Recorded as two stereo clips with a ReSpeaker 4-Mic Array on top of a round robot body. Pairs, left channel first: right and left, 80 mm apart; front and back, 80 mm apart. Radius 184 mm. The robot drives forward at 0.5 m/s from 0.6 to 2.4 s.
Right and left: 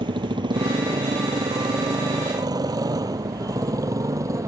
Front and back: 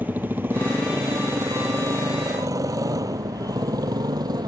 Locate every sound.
0.0 s a motorcycle: 110° left; by 4.5 s 140° left